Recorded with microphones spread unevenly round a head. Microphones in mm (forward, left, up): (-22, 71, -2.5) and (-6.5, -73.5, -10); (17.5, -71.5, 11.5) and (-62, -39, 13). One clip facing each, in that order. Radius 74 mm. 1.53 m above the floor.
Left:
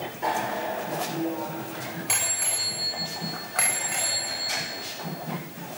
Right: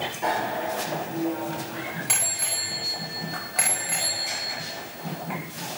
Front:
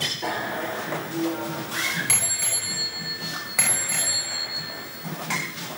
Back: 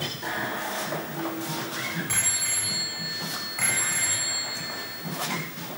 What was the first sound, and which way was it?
A bicycle bell, 5° left.